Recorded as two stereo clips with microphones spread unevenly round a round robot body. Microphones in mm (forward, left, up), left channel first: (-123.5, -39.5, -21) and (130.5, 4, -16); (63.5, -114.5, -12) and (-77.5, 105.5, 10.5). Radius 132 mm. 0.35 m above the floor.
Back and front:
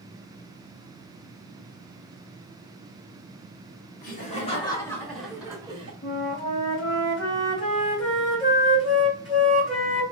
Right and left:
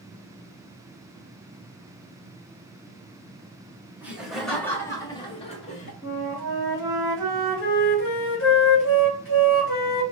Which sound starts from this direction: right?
A flute, at 6.0 s.